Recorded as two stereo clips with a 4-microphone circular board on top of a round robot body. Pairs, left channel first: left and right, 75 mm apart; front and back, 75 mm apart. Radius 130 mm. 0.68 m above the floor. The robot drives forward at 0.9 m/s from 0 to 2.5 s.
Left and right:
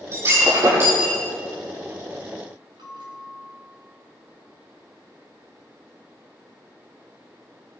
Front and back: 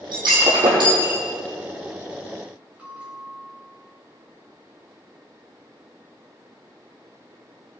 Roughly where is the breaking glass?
Behind right.